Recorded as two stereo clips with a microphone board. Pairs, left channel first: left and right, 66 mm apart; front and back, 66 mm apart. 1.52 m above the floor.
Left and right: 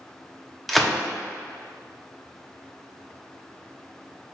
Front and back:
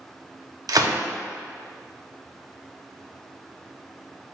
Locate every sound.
0.7 s a gunshot: straight behind, 0.5 m